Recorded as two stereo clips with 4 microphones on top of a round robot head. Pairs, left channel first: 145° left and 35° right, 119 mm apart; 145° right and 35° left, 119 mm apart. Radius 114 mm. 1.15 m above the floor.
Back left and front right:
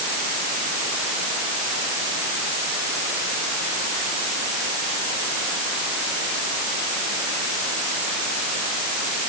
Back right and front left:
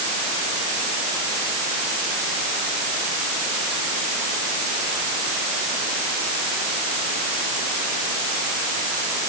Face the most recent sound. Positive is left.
No sound to turn to.